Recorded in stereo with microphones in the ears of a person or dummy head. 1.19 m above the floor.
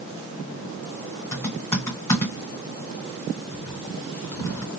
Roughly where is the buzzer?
I don't hear a buzzer.